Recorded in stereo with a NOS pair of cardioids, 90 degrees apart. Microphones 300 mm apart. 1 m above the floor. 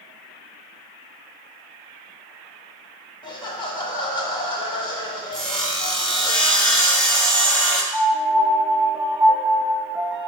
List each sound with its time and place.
3.2 s laughter: 15° left, 1.1 m
5.3 s sawing: 5° left, 1.1 m
7.9 s a piano: 5° right, 0.5 m